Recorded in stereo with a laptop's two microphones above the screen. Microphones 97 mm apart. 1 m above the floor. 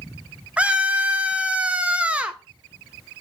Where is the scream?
10° right (ahead or behind), 0.7 m.